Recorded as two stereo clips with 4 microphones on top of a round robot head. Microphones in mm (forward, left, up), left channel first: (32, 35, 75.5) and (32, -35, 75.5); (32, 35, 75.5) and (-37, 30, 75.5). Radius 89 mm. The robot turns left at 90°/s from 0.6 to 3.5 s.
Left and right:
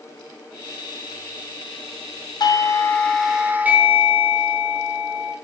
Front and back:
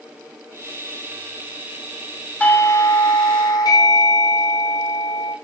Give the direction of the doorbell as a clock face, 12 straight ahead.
9 o'clock.